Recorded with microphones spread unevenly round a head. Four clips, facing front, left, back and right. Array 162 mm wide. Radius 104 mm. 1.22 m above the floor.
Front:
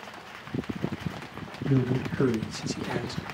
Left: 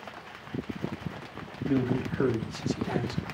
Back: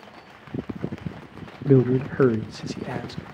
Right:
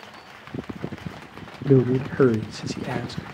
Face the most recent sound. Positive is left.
turn(degrees=-95)